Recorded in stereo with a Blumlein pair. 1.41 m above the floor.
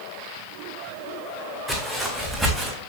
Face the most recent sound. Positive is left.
turn(degrees=-15)